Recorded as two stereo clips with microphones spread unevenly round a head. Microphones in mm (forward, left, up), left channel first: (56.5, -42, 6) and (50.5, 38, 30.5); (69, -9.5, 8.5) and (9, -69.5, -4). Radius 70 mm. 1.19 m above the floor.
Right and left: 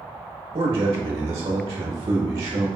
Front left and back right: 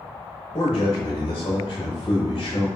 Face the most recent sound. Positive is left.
turn(degrees=100)